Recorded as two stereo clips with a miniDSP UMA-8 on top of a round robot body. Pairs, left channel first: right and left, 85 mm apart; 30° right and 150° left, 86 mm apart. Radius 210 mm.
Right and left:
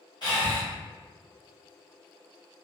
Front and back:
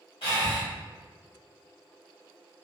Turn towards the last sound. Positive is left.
turn(degrees=-45)